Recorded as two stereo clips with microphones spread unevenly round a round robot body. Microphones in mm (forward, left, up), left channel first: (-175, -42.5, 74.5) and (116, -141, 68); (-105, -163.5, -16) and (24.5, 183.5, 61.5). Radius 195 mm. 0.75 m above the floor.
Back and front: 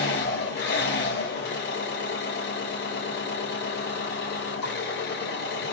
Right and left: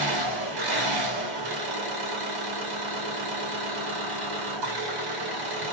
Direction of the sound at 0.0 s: 100° left.